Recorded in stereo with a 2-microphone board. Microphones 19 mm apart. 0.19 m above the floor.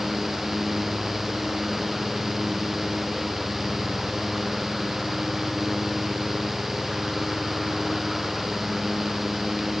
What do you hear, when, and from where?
Only background noise.